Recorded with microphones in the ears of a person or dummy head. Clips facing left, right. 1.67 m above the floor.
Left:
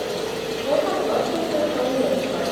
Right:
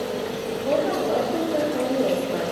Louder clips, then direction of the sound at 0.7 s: Left 1 dB; 10° right (ahead or behind).